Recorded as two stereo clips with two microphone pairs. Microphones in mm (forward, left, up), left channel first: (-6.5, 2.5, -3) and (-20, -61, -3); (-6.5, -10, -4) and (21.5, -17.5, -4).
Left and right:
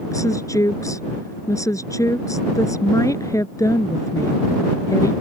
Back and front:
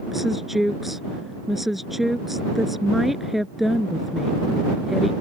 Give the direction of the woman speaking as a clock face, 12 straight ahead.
10 o'clock.